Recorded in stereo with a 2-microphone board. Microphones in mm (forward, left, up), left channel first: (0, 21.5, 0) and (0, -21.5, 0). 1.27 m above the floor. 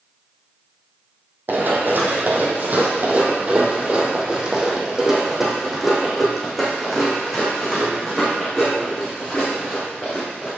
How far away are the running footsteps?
About 2.0 m.